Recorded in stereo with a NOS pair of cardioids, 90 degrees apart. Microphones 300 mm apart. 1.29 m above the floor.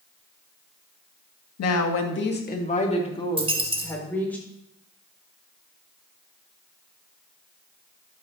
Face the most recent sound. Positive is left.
turn(degrees=-20)